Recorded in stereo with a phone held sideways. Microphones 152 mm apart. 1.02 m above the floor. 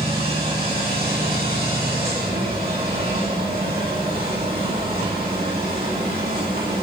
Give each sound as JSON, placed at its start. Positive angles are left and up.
{"t": 0.0, "sound": "a machine running", "side_deg": -85, "distance_m": 9.0}